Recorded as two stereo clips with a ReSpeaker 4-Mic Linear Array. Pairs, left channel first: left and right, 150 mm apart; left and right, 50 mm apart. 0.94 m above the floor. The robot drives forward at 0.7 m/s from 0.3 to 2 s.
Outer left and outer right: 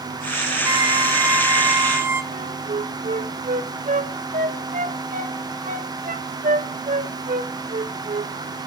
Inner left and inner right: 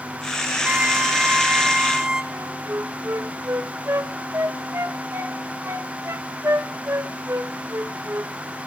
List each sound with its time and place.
0.6 s a violin: 25° right (ahead or behind), 0.9 m; by 2.2 s 15° right (ahead or behind), 1.4 m
2.3 s a flute: 65° right (ahead or behind), 1.2 m